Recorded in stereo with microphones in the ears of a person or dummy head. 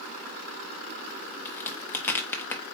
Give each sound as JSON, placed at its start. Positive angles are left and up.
{"t": 1.4, "sound": "a crack", "side_deg": 10, "distance_m": 0.6}